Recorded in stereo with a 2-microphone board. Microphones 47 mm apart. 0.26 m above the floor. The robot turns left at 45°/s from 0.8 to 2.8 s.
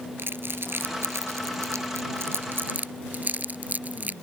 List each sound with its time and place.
0.2 s crumpling: 50° right (ahead or behind); by 4.1 s 35° right (ahead or behind)